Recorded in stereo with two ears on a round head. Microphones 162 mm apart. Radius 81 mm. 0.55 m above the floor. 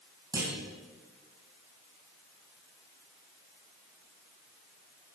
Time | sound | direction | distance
0.3 | a clunk | 20° right (ahead or behind) | 3 m